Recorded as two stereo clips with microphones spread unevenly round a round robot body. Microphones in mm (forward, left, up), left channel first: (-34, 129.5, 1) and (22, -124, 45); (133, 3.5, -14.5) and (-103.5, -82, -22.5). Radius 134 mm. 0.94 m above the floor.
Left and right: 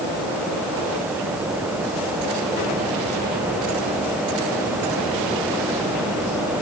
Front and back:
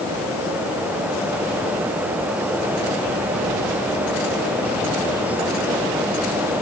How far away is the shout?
I don't hear a shout.